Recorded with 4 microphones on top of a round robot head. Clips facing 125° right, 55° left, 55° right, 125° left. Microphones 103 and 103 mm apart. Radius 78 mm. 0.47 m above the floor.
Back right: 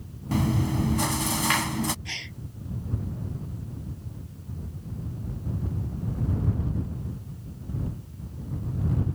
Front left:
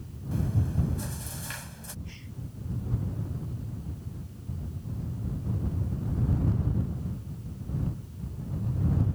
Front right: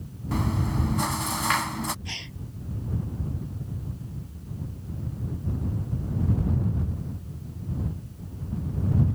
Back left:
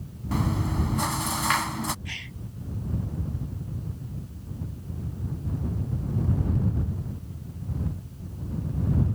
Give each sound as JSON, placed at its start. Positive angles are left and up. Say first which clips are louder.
{"t": 0.3, "sound": "chewing", "louder": "back right 6 dB, even", "azimuth_deg": -145}
{"t": 2.0, "sound": "a gasp", "louder": "back right 4 dB, even", "azimuth_deg": -120}